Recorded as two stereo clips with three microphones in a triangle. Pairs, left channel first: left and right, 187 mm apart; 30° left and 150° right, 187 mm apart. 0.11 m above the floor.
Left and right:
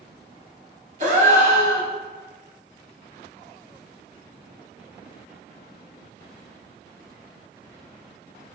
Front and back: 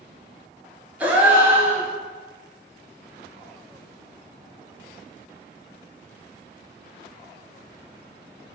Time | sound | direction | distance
1.0 | a gasp | 70° right | 1.0 m